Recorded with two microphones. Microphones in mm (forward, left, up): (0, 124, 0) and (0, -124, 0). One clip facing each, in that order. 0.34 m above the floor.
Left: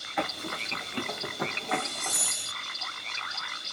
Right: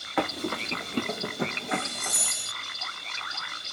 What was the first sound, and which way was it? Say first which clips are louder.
Running footsteps: right 6 dB; 70° right (ahead or behind).